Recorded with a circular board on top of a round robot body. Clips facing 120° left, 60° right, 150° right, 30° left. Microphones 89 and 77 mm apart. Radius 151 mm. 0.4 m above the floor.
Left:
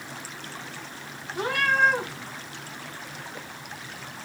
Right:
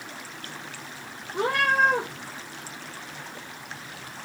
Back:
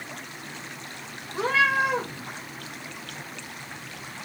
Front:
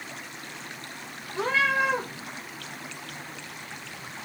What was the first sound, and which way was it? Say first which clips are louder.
A cat meowing: right 1 dB, back 2 dB; 75° right.